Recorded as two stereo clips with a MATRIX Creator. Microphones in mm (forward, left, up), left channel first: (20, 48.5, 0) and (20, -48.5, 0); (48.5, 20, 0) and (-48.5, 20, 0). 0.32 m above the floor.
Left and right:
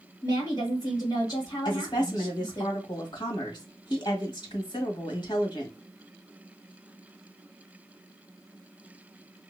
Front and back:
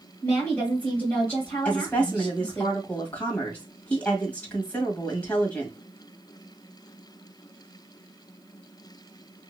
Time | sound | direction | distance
0.2 | a woman speaking | 65° left | 1.8 m
1.6 | a woman speaking | 70° left | 1.6 m